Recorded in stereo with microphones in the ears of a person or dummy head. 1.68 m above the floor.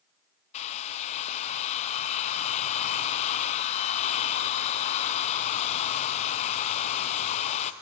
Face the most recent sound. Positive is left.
turn(degrees=35)  # may be behind; listen again after turning